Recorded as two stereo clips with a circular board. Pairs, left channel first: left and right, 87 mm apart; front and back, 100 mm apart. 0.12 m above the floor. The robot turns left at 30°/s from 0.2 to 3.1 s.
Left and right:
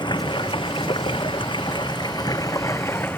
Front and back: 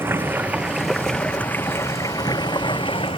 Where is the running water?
110° left; by 3.2 s 25° left.